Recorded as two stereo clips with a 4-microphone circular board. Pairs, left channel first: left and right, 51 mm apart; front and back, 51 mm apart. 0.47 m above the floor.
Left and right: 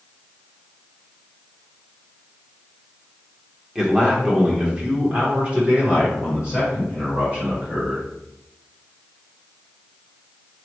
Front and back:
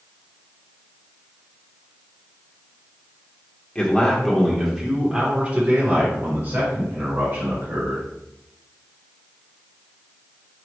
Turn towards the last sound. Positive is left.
turn(degrees=-150)